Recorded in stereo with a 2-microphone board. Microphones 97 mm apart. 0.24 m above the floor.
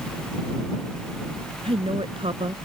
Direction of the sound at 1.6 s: 65° right (ahead or behind).